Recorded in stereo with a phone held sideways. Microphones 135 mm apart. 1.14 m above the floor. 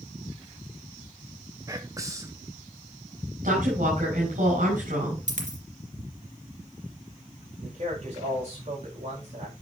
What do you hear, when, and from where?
1.7 s whispering: 25° right (ahead or behind), 0.6 m
3.4 s a woman speaking: 70° right (ahead or behind), 5 m
5.3 s a dropped coin: 60° right (ahead or behind), 2 m
7.6 s a man speaking: 50° right (ahead or behind), 5.5 m